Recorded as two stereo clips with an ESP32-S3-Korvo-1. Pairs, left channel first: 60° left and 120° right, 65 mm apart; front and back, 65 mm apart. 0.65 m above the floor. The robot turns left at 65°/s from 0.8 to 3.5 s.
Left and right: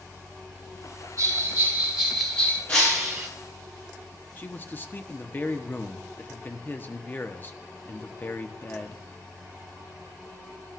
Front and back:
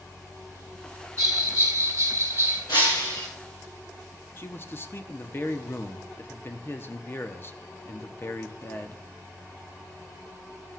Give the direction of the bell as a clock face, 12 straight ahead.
5 o'clock.